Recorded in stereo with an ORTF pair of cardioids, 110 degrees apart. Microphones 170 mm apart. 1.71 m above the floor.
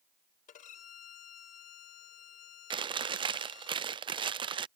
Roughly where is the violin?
Ahead left.